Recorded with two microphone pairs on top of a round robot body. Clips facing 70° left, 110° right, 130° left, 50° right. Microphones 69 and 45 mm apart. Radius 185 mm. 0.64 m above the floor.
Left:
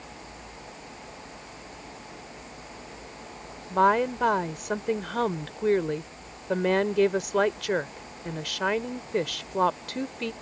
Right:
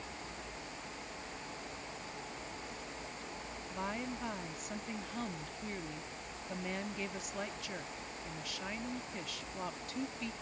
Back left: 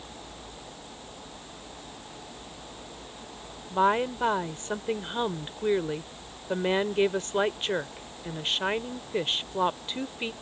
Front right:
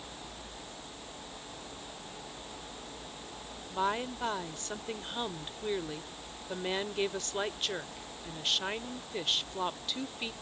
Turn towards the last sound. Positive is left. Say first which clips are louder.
# left 19 dB, back left 8 dB
turn(degrees=70)